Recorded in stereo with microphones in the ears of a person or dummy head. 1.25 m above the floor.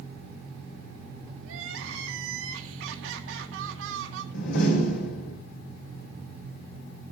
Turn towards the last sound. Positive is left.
turn(degrees=80)